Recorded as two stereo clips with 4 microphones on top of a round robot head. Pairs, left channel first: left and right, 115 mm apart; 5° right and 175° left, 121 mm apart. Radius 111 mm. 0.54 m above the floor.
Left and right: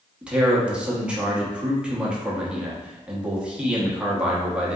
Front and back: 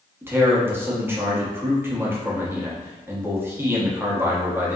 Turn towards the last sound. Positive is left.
turn(degrees=-155)